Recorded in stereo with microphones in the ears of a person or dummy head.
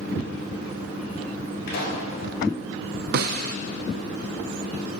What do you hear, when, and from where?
1.7 s a pop: 60° left (ahead or behind), 4.5 m
3.1 s a snare drum: 60° right (ahead or behind), 0.5 m